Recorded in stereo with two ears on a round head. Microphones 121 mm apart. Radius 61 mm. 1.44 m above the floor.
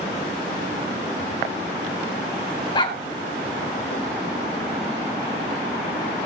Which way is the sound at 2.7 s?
35° left (ahead or behind).